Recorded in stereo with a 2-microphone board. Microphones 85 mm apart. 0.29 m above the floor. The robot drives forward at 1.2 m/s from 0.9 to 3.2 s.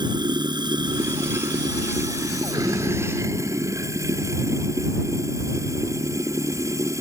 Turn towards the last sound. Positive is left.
turn(degrees=-40)  # may be behind; listen again after turning